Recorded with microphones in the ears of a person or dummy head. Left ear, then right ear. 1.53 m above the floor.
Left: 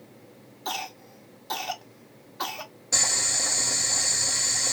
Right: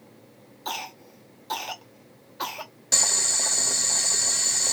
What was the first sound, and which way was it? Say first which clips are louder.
A cough: even; centre (ahead or behind).